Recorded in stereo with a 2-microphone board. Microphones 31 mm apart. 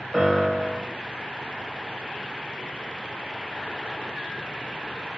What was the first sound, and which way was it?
A piano, 5° left (ahead or behind).